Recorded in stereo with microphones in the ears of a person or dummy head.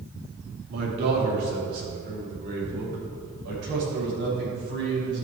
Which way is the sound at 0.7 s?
55° right (ahead or behind).